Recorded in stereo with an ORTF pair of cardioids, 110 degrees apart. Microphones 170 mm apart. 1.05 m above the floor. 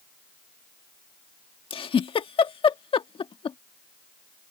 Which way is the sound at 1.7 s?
30° left.